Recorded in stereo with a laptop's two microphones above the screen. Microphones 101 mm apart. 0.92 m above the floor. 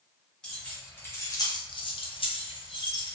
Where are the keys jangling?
5° left (ahead or behind), 0.8 m; by 3.1 s 45° left (ahead or behind), 1.0 m.